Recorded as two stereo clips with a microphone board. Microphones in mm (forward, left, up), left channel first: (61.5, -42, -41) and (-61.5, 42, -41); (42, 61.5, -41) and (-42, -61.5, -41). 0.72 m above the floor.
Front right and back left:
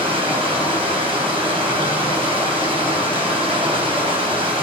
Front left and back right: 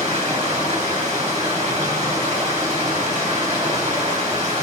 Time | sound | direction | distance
0.0 | running water | 165° right | 3 m